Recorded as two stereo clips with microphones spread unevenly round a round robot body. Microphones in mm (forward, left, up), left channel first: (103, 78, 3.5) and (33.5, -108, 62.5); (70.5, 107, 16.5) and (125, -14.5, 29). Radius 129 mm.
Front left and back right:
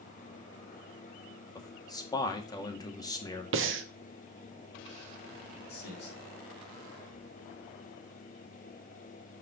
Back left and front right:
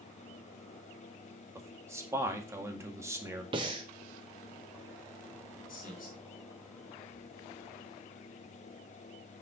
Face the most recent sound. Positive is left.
turn(degrees=110)